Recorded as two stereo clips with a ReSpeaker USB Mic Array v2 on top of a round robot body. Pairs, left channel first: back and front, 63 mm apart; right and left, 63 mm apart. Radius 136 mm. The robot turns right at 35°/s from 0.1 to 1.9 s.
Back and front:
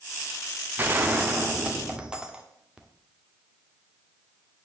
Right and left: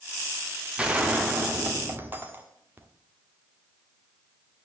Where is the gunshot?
25° left, 1.7 m; by 2.9 s 65° left, 1.7 m.